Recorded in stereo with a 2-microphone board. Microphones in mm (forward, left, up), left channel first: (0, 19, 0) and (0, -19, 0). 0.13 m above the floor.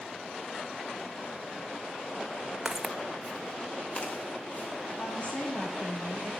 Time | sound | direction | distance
2.6 | footsteps | 10° right (ahead or behind) | 0.5 m
5.0 | a woman speaking | 35° left (ahead or behind) | 5 m